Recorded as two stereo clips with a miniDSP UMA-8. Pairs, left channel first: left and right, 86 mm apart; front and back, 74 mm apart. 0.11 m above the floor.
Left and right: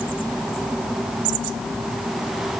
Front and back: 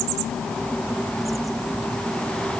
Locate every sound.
Only background noise.